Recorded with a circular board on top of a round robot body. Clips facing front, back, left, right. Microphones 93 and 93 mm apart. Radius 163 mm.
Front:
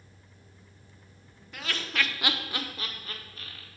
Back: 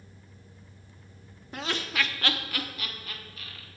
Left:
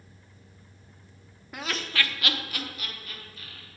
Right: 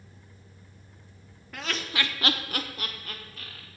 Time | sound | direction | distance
1.5 | laughter | 155° left | 0.9 m